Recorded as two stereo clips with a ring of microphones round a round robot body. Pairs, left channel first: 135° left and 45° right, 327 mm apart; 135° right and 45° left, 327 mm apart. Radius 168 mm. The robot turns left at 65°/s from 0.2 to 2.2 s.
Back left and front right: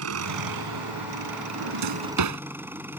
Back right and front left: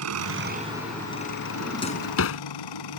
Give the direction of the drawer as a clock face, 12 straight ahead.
2 o'clock.